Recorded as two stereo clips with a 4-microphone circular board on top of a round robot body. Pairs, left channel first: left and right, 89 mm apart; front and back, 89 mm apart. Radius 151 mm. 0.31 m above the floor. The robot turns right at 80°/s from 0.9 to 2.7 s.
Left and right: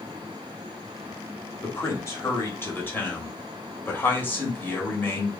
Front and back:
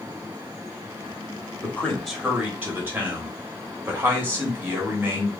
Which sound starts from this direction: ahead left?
A man speaking, at 1.6 s.